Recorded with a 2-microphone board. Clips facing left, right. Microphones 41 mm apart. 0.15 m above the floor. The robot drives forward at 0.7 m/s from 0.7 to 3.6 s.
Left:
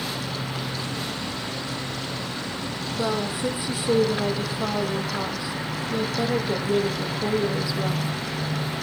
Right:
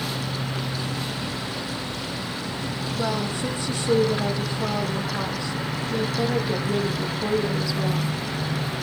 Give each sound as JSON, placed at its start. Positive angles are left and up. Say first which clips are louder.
{"t": 3.0, "sound": "a woman speaking", "louder": "left 1 dB", "side_deg": 10, "distance_m": 4.5}